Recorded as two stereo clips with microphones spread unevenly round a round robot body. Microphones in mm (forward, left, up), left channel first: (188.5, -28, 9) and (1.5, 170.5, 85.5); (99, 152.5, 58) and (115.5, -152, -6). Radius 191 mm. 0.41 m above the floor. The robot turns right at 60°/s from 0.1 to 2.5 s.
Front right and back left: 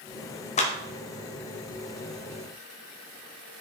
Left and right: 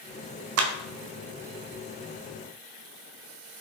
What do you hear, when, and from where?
0.6 s a clap: 100° right, 1.0 m; by 0.8 s 90° right, 1.0 m